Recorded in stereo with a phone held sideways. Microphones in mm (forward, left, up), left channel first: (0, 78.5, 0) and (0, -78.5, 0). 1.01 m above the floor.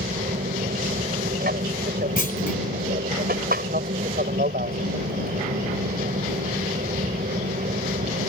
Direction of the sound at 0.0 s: 70° right (ahead or behind).